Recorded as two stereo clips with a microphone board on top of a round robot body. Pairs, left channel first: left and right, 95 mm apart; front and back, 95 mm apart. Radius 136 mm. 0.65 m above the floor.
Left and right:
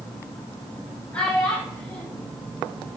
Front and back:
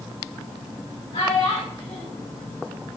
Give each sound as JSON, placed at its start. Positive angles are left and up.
{"t": 1.1, "sound": "a child speaking", "azimuth_deg": 15, "distance_m": 3.0}